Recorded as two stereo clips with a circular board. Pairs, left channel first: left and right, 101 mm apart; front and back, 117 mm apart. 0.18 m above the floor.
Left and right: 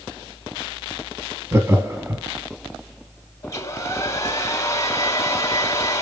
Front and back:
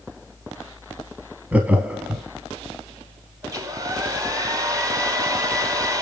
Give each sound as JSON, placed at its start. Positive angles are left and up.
{"t": 1.5, "sound": "laughter", "azimuth_deg": -115, "distance_m": 1.1}
{"t": 3.4, "sound": "a hair dryer", "azimuth_deg": 135, "distance_m": 1.2}